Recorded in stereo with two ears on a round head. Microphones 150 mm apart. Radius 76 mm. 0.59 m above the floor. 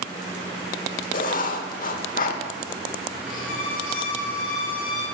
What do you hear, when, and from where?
1.1 s writing: 55° left (ahead or behind), 1.4 m
3.3 s a violin: 55° left (ahead or behind), 3.5 m